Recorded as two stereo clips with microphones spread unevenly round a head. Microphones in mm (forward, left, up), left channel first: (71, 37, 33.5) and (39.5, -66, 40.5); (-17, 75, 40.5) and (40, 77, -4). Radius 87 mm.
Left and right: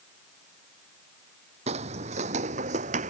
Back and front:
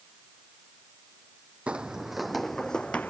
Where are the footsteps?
100° right; by 3.1 s 110° right.